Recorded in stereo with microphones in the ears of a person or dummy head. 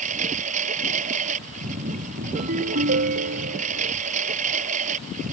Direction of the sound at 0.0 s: 40° right (ahead or behind).